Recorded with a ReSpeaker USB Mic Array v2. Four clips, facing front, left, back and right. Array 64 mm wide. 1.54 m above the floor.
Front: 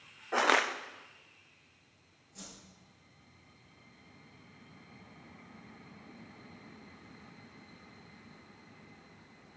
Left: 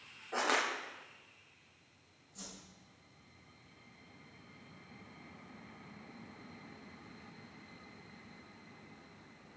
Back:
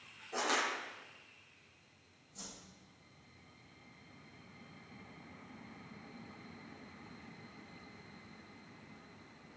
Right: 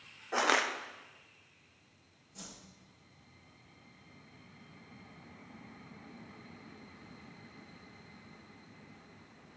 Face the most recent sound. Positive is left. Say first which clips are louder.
# right 1 dB, front 1 dB
turn(degrees=-45)